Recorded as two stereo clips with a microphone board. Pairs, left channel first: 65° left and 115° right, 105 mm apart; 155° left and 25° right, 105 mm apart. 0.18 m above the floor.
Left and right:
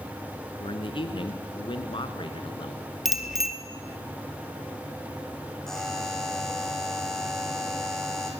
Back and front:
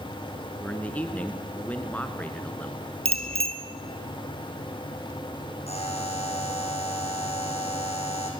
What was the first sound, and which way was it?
A man speaking, 85° left.